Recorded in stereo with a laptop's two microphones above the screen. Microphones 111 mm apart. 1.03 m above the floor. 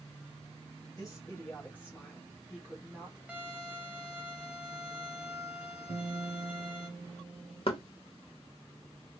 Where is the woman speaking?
35° left (ahead or behind), 1.5 m; by 3.2 s 20° right (ahead or behind), 1.3 m.